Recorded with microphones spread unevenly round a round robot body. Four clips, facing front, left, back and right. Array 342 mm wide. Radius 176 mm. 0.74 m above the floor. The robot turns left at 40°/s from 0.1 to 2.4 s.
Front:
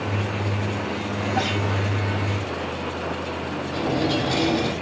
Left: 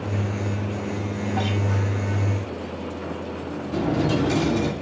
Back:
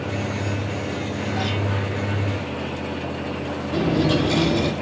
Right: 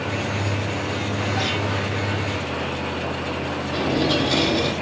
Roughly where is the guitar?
Ahead.